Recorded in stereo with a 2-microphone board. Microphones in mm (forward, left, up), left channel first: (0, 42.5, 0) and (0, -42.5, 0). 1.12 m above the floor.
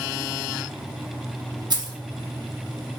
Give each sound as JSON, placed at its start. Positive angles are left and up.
{"t": 1.7, "sound": "keys jangling", "side_deg": -55, "distance_m": 0.8}